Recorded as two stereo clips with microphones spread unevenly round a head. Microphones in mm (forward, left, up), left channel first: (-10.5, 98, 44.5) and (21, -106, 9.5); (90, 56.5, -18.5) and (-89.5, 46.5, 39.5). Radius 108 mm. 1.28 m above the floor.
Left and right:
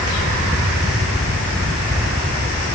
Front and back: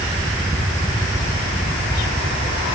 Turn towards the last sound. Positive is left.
No sound to turn to.